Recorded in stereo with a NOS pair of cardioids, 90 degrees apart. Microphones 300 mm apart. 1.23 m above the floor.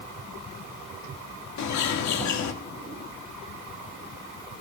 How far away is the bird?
About 2 m.